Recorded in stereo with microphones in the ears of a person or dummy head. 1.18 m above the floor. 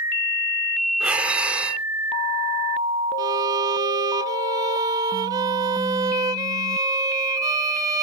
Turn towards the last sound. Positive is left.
turn(degrees=-15)  # may be behind; listen again after turning